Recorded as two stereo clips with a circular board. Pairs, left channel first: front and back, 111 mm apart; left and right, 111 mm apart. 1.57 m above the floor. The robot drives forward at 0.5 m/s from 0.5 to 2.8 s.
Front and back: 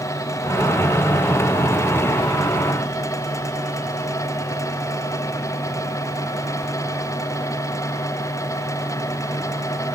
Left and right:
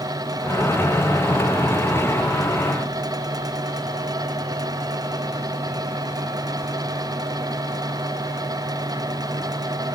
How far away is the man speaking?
I don't hear a man speaking.